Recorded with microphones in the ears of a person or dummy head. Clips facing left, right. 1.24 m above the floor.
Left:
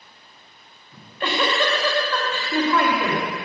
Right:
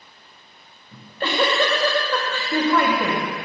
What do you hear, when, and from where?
0.9 s a giggle: 30° right (ahead or behind), 2.5 m